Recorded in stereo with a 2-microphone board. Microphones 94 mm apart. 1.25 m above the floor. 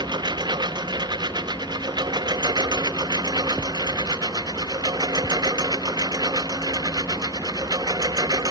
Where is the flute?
No flute in this recording.